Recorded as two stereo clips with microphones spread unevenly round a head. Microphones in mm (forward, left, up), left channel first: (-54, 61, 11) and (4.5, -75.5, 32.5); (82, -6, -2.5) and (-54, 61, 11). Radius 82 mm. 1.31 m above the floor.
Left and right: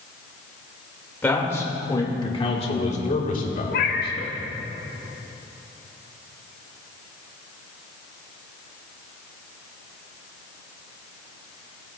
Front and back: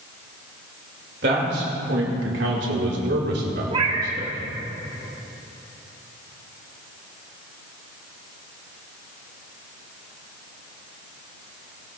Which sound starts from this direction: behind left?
A cat meowing, at 3.7 s.